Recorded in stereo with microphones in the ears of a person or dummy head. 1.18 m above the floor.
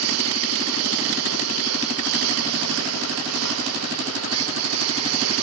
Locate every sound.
0.0 s a lawn mower: 85° right